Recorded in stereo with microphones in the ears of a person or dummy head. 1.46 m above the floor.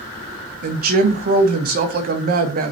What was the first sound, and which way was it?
A woman speaking, 45° right (ahead or behind).